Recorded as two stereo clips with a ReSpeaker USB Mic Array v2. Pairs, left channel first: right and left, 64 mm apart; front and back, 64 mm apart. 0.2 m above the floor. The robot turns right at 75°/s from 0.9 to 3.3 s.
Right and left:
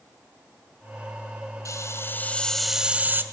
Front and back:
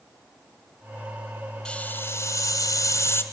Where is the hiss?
75° right, 2.0 m; by 3.2 s 40° left, 2.0 m.